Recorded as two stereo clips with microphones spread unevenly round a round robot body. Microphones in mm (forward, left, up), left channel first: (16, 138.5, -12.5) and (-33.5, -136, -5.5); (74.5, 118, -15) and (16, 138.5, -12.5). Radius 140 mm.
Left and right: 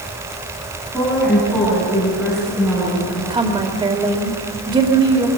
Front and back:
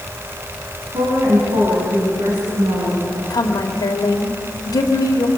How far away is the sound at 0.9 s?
About 7 m.